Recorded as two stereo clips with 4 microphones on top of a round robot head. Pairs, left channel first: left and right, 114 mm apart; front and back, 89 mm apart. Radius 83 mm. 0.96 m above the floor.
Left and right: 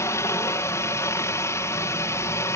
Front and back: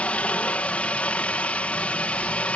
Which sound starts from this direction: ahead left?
A helicopter, at 0.0 s.